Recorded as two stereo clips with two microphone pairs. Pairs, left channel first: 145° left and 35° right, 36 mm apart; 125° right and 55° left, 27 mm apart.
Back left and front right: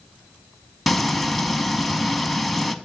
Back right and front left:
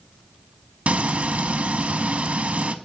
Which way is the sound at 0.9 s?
55° left.